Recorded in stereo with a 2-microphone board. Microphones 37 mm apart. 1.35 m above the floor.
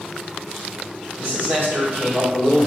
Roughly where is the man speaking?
Right.